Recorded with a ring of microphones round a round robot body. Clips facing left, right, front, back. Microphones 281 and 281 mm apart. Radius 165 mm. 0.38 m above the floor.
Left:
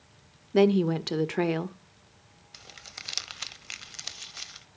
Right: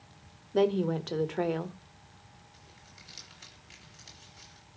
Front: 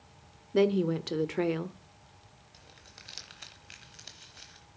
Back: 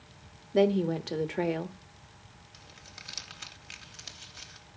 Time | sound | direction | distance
0.5 | a woman speaking | 65° left | 1.0 m
2.5 | crumpling | 95° left | 0.9 m